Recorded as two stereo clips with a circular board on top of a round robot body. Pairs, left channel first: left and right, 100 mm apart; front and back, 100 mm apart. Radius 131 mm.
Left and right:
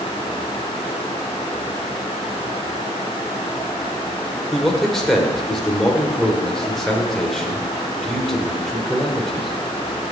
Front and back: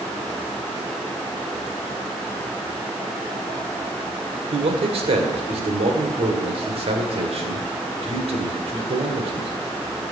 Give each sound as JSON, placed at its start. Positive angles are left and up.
{"t": 4.5, "sound": "a man speaking", "azimuth_deg": 175, "distance_m": 1.9}